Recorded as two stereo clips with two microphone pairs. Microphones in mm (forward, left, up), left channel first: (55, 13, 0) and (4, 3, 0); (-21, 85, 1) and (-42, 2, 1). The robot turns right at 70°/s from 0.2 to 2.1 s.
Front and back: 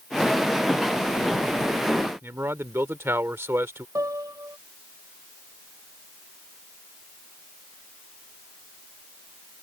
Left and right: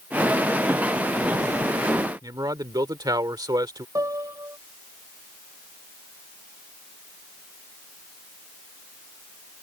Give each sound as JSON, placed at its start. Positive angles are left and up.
{"t": 2.2, "sound": "a man speaking", "azimuth_deg": -140}
{"t": 4.0, "sound": "a piano", "azimuth_deg": -155}